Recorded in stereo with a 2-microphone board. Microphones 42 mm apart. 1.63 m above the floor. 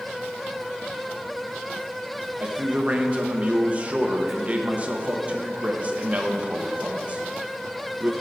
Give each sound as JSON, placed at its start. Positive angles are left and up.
{"t": 2.4, "sound": "a man speaking", "side_deg": -35, "distance_m": 1.0}